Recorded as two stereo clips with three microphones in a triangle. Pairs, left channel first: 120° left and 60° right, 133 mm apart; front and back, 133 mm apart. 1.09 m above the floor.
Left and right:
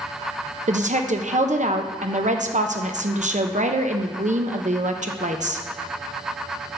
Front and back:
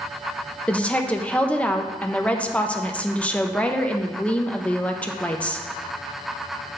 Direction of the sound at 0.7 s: 80° right.